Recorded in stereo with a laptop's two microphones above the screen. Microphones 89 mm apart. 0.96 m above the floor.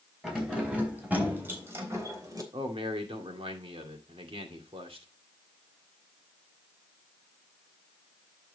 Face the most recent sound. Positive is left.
turn(degrees=-85)